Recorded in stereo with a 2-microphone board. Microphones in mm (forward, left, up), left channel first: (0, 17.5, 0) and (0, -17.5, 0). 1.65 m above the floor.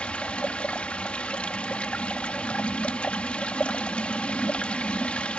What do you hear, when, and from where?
0.0 s running water: 40° left (ahead or behind)